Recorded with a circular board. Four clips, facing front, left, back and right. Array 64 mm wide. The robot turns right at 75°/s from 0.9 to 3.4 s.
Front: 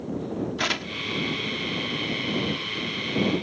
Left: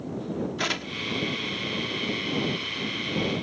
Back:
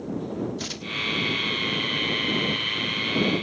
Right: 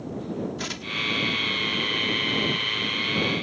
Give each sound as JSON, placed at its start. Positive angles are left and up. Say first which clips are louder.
{"t": 0.6, "sound": "tearing paper", "louder": "left 1 dB, front 3 dB", "azimuth_deg": 30}